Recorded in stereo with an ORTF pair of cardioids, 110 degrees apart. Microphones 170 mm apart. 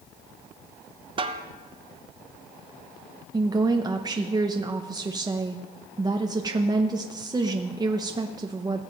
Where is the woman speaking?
25° right, 0.7 m.